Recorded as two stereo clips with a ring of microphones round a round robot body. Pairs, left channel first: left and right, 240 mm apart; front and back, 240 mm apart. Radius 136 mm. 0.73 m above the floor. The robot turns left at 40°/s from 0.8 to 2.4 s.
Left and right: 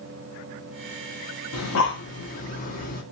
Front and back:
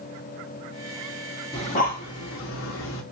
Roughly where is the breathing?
Left.